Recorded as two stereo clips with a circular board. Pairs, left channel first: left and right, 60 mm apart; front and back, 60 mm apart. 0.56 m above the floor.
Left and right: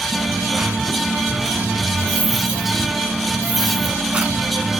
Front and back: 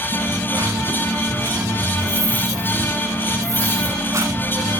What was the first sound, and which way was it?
A dropped coin, 155° right.